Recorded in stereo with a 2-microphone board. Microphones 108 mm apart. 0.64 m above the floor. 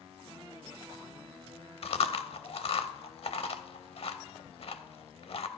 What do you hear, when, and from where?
1.8 s chewing: 60° left (ahead or behind), 0.6 m